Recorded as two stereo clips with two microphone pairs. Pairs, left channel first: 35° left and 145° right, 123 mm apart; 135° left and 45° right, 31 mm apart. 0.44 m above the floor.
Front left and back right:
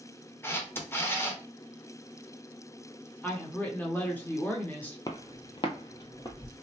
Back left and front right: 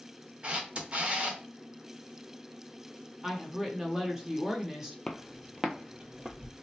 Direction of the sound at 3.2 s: 5° right.